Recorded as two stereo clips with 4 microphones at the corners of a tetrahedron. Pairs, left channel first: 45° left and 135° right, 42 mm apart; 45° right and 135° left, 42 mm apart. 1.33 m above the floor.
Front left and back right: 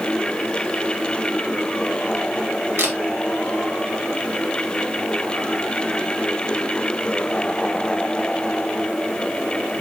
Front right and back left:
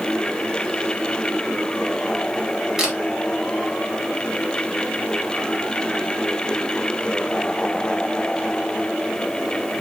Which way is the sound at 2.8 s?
145° right.